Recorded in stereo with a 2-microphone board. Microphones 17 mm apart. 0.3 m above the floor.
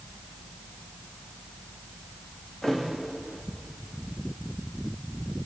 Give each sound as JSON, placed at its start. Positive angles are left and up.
{"t": 2.6, "sound": "a thud", "side_deg": 30, "distance_m": 7.5}